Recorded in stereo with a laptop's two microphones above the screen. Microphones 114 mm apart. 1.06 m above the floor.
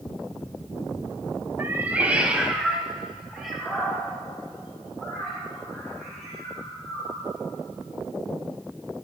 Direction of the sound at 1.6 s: 20° right (ahead or behind).